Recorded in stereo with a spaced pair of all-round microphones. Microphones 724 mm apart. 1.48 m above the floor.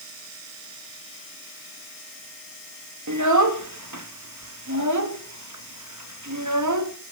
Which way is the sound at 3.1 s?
25° right (ahead or behind).